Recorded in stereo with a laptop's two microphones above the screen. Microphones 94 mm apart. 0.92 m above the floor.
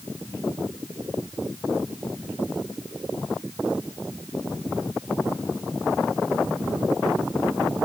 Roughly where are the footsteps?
I don't hear footsteps.